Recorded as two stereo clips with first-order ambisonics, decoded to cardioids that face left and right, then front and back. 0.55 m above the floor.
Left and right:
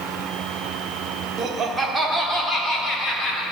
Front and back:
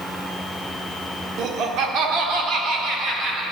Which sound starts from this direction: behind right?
Laughter, at 1.4 s.